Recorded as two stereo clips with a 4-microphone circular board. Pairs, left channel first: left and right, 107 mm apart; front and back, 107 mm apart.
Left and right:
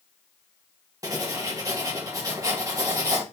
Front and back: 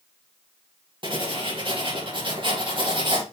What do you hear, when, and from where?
1.0 s writing: 145° right, 2 m